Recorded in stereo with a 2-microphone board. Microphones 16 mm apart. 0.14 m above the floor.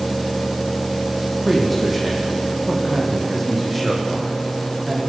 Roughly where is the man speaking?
Centre.